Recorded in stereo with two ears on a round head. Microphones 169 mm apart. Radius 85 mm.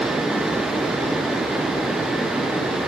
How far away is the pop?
No pop in this recording.